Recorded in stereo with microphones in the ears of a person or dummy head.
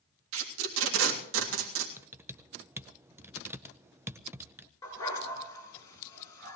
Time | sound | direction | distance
0.3 | tape being pulled | 80° right | 3 m
2.0 | typing on a keyboard | 10° right (ahead or behind) | 0.6 m
4.8 | a dog barking | 15° left (ahead or behind) | 5 m